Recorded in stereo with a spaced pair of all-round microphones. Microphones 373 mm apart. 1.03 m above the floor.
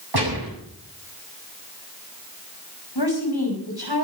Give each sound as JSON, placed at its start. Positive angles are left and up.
{"t": 0.1, "sound": "a gunshot", "side_deg": -90, "distance_m": 8.0}
{"t": 3.0, "sound": "a woman speaking", "side_deg": 90, "distance_m": 6.0}